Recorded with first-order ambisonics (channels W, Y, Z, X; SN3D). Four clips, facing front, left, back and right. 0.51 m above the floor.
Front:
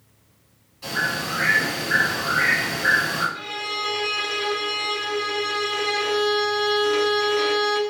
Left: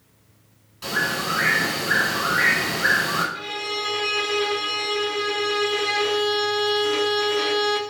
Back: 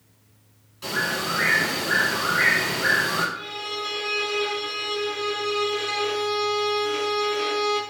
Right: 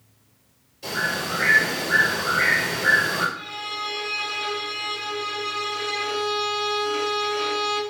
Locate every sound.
0.8 s a bird: 110° left, 2.0 m
3.4 s a violin: 55° left, 0.5 m